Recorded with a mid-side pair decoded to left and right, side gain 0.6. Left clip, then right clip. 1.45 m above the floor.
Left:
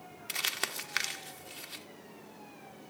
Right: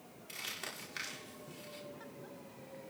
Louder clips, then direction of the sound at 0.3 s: Left 9 dB; 60° left.